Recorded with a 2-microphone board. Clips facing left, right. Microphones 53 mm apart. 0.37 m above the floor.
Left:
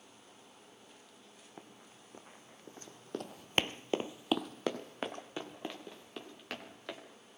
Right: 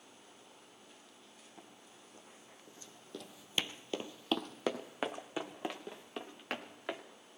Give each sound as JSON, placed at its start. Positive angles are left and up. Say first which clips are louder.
{"t": 1.6, "sound": "running footsteps", "louder": "left 4 dB", "side_deg": 35, "distance_m": 1.9}